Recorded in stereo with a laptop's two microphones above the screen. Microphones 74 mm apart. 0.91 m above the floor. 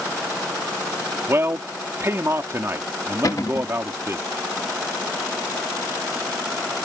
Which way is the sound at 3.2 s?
50° left (ahead or behind).